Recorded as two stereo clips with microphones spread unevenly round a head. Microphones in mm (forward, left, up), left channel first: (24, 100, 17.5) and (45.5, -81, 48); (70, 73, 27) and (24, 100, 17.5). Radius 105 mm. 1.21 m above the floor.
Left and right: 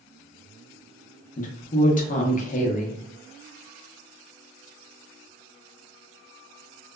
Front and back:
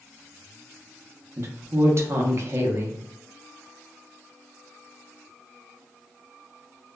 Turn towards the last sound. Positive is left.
turn(degrees=135)